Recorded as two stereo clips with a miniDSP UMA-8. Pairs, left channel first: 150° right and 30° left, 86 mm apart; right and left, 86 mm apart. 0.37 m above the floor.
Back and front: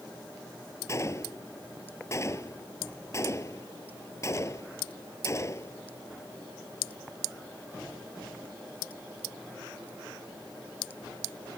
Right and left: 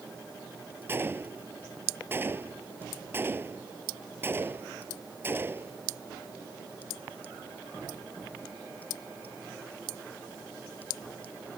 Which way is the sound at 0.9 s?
155° left.